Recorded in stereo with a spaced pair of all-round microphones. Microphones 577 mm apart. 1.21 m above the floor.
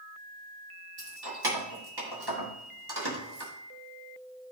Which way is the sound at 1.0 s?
40° right (ahead or behind).